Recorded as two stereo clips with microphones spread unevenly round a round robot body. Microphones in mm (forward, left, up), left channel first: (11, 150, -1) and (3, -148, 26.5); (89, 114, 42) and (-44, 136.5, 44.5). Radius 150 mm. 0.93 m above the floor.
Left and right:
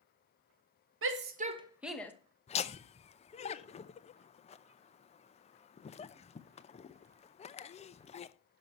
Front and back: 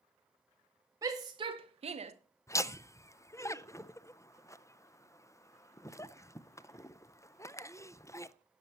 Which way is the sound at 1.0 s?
130° right.